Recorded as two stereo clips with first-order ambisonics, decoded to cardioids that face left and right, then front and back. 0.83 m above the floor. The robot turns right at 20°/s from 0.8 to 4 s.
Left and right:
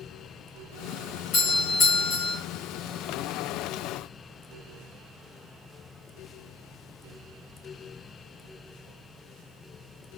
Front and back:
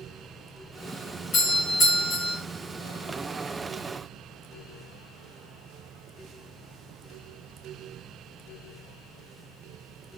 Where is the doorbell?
50° left, 1.7 m; by 2.4 s 70° left, 1.7 m.